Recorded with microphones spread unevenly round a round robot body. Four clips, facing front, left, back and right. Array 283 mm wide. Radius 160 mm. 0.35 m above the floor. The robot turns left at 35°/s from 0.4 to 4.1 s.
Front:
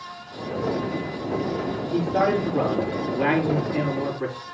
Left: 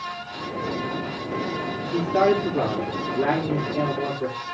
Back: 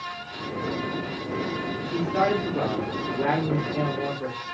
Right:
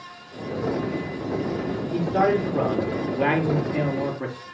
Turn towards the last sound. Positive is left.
turn(degrees=-55)